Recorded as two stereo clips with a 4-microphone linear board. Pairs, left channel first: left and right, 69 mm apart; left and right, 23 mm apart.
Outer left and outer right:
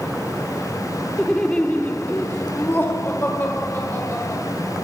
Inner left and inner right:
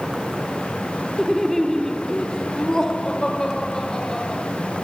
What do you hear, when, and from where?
1.2 s laughter: 10° left (ahead or behind), 0.9 m; by 4.4 s 35° left (ahead or behind), 1.9 m